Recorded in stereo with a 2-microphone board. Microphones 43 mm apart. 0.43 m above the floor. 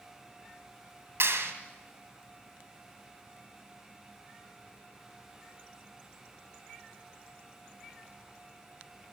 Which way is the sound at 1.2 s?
70° right (ahead or behind).